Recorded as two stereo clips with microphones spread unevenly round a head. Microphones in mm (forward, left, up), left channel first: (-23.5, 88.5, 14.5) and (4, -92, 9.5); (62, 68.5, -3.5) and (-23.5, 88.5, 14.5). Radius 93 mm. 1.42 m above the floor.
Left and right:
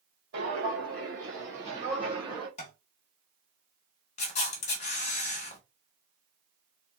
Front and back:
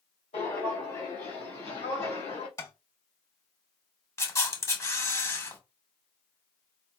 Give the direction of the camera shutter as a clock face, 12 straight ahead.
11 o'clock.